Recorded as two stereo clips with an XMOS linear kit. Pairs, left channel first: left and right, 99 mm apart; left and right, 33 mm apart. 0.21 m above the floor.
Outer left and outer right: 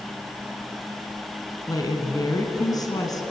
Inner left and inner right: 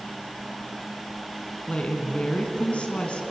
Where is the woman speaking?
40° left (ahead or behind), 2.5 m.